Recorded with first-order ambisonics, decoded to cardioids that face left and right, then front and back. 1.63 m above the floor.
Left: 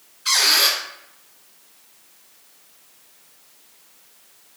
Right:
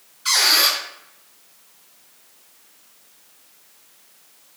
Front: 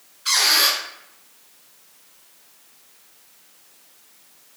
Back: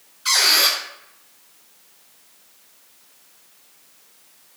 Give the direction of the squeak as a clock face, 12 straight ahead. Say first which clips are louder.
Even, back 1 dB; 4 o'clock.